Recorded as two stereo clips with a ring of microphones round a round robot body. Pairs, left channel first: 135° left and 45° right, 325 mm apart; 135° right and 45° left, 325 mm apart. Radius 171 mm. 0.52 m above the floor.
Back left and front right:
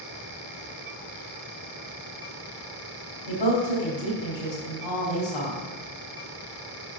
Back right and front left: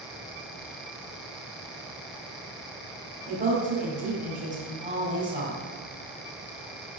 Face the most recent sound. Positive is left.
turn(degrees=115)